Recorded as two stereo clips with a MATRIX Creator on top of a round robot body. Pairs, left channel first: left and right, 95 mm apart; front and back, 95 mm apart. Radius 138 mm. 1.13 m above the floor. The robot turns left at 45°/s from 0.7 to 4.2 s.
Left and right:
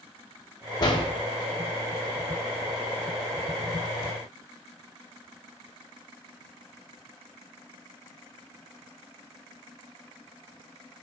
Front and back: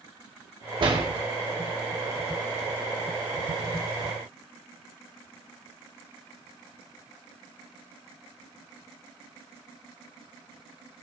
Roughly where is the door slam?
Behind left.